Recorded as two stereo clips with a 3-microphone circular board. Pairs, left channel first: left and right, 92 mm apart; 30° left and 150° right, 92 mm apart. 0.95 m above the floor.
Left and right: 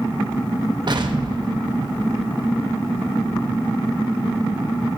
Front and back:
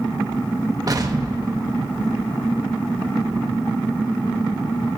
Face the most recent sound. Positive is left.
turn(degrees=-110)